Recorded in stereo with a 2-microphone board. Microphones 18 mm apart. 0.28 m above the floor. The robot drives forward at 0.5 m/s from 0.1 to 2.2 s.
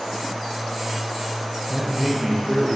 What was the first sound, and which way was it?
A man speaking, 5° right (ahead or behind).